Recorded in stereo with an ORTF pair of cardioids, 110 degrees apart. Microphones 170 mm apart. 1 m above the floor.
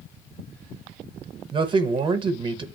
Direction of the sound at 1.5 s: 30° right.